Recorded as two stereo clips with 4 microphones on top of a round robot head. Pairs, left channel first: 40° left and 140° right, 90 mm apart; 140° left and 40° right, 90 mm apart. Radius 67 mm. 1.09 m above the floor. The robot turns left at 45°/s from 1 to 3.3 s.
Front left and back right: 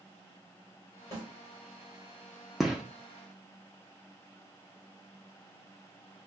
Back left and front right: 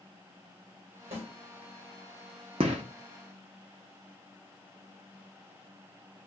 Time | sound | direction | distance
1.1 | a snare drum | 20° right | 2.5 m
2.6 | a gunshot | 50° right | 0.6 m